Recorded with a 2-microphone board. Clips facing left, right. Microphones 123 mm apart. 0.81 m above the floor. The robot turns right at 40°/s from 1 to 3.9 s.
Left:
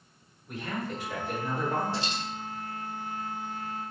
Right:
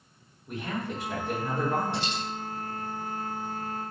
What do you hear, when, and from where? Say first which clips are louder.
0.5 s a man speaking: right 1 dB; 145° right, 1.3 m; by 2.1 s 100° right, 1.3 m
1.9 s a dropped coin: right 1 dB; 70° right (ahead or behind), 1.7 m; by 2.2 s 65° right (ahead or behind), 1.7 m